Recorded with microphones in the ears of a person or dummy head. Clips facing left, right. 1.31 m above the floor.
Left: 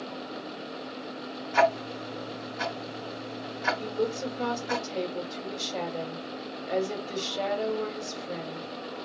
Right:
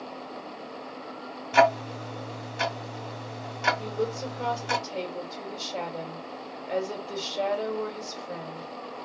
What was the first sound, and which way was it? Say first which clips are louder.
Ticking: right 3 dB; 50° right (ahead or behind).